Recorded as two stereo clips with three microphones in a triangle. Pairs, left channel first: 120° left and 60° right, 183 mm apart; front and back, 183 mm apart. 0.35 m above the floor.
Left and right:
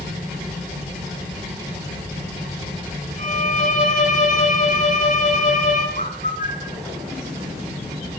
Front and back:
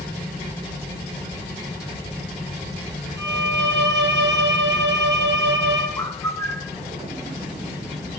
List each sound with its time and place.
3.2 s a violin: 165° left, 9 m
6.0 s a bird: 75° left, 2.5 m